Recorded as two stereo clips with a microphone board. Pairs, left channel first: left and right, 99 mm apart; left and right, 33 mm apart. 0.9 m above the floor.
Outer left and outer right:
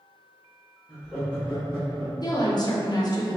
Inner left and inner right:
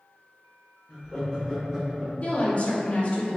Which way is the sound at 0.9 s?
15° right (ahead or behind).